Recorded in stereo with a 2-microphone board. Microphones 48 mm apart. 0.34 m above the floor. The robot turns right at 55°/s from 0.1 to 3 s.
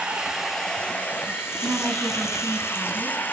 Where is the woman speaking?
60° right, 4 m; by 3.3 s 15° left, 4 m.